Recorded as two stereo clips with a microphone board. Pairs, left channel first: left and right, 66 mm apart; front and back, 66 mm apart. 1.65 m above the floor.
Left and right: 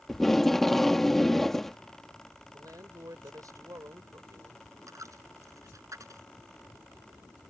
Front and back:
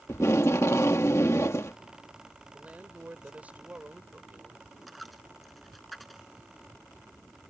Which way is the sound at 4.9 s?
90° right.